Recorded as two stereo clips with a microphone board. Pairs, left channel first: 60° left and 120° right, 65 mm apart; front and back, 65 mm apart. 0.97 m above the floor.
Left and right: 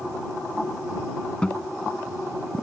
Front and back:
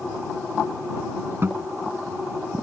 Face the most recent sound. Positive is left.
turn(degrees=135)